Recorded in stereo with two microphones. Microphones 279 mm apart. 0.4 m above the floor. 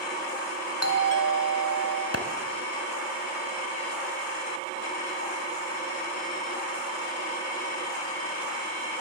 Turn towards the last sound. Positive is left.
turn(degrees=55)  # may be behind; listen again after turning